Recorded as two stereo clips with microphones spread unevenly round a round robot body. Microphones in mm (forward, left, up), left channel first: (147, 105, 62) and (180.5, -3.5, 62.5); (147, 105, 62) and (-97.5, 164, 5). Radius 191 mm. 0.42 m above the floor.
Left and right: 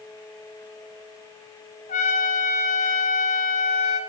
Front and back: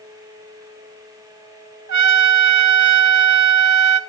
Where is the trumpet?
145° left, 1.1 m.